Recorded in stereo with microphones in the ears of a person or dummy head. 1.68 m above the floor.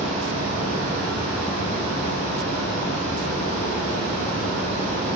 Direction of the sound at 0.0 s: 40° right (ahead or behind).